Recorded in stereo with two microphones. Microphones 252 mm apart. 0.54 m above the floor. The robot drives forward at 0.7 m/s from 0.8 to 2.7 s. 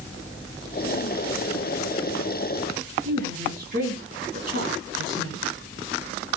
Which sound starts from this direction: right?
A woman speaking, at 3.0 s.